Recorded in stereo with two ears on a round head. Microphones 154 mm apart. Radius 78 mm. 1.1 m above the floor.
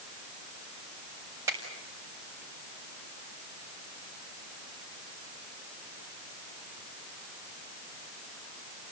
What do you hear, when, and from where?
1.5 s a finger snap: 15° right (ahead or behind), 6 m